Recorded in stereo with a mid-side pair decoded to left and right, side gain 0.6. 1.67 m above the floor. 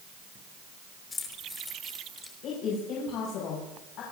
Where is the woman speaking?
65° left, 7 m.